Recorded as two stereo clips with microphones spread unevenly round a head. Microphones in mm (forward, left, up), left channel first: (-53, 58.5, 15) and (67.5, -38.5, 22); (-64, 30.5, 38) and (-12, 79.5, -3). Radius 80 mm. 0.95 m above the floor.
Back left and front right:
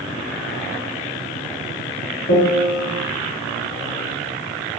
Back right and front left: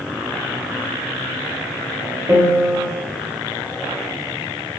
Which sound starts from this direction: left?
A piano, at 2.3 s.